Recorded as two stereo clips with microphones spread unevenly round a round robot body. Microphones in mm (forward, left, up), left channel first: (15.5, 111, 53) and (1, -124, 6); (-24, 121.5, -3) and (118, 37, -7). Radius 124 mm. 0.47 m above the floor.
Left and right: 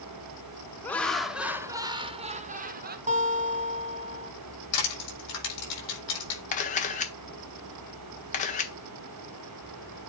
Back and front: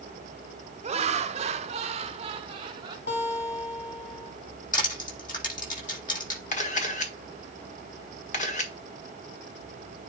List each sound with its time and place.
0.8 s laughter: 5° right, 1.1 m; by 3.0 s 90° right, 1.2 m
3.1 s a guitar: 155° right, 1.9 m
4.7 s crushing: 115° left, 6.5 m
6.5 s a camera shutter: 145° left, 1.4 m